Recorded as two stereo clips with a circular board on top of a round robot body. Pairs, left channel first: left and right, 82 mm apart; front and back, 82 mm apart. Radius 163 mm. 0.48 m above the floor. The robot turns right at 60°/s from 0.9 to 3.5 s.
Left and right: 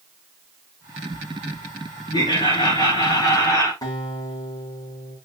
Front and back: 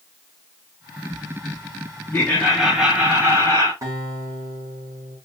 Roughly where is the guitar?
Behind left.